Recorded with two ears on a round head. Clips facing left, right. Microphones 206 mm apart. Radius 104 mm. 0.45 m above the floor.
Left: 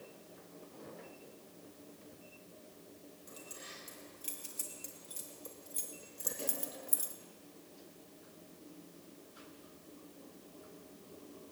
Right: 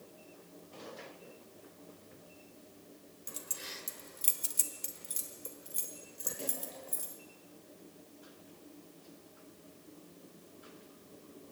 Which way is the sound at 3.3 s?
65° right (ahead or behind).